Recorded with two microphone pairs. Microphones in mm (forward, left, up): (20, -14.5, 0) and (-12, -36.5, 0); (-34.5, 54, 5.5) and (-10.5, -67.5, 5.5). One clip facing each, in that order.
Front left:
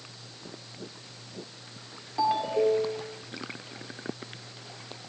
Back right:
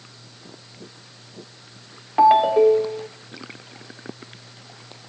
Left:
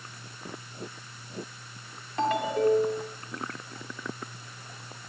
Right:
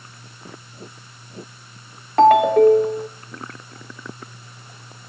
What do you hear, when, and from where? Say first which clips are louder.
2.2 s a ringtone: back right 11 dB, right 14 dB; 105° right, 1.9 m